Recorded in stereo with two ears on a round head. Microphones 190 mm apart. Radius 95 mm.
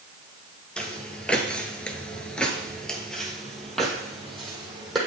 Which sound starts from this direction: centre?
Footsteps, at 0.8 s.